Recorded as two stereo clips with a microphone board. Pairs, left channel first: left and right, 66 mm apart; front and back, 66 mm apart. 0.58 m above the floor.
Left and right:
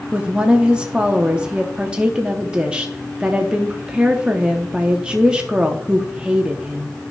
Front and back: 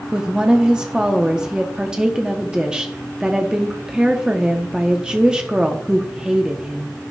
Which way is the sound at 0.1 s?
135° right.